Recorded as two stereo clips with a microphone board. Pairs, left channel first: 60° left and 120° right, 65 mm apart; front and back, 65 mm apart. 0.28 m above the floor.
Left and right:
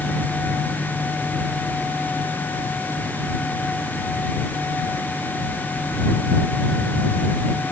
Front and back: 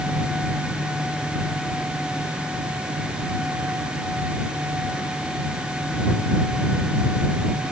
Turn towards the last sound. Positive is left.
No sound to turn to.